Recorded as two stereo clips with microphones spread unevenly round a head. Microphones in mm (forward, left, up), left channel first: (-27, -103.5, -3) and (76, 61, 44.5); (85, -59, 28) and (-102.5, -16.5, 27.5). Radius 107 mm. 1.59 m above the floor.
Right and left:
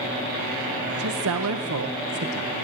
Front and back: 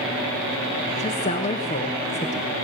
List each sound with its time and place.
0.9 s a woman speaking: 50° left, 1.3 m